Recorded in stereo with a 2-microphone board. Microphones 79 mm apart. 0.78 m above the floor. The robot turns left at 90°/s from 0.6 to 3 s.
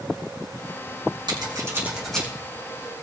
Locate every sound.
1.3 s scissors: 70° right (ahead or behind), 5.5 m; by 2.3 s 15° left (ahead or behind), 5.5 m